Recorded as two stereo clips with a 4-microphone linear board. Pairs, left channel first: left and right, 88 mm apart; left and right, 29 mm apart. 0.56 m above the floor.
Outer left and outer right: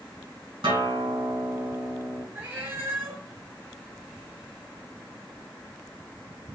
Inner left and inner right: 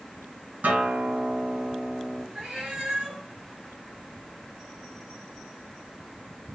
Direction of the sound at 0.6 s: 80° right.